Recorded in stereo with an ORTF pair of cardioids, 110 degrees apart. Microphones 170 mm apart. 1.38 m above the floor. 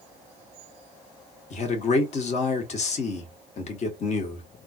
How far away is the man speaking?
About 1.5 m.